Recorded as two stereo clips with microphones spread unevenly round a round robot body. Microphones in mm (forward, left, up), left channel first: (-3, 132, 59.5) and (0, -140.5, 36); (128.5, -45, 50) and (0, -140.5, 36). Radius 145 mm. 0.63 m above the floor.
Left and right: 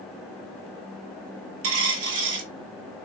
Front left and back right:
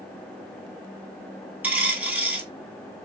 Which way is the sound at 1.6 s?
60° right.